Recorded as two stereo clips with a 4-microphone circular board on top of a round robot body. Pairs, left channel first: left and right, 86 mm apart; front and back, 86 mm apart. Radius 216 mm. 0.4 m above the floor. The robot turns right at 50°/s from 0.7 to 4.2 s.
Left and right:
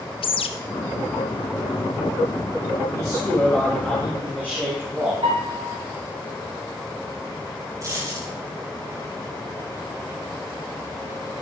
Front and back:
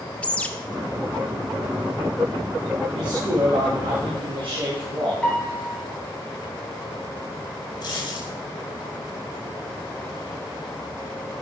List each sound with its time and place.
0.2 s a bird: 75° left, 0.8 m
2.9 s a man speaking: 135° left, 5.5 m; by 5.1 s 165° right, 5.5 m
5.2 s a piano: 80° right, 6 m
7.8 s a dropped coin: 35° right, 6 m